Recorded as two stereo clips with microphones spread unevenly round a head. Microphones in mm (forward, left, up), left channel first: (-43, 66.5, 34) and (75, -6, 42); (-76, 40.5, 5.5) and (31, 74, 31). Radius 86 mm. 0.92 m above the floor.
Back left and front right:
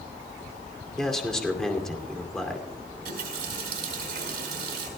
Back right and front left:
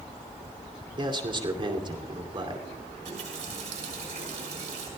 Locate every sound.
1.0 s a man speaking: 65° left, 2.5 m
3.0 s a running tap: 25° right, 4.5 m